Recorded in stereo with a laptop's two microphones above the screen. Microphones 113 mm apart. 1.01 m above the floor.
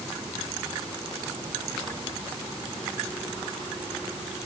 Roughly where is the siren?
I don't hear a siren.